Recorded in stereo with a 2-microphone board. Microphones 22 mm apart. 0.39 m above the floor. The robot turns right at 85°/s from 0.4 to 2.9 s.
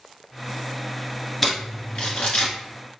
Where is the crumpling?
10° left (ahead or behind), 1.4 m; by 2.5 s 80° left, 1.4 m.